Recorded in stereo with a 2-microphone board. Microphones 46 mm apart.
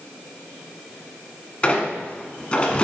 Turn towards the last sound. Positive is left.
turn(degrees=25)  # may be behind; listen again after turning